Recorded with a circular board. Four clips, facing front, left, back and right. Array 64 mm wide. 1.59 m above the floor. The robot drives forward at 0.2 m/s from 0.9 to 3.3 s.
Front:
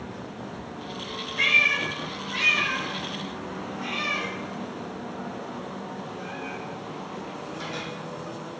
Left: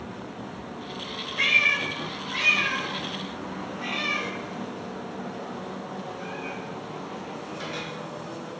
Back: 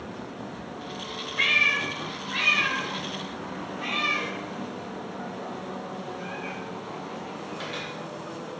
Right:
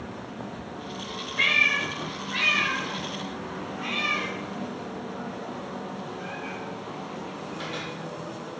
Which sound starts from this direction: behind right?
A cat meowing, at 1.4 s.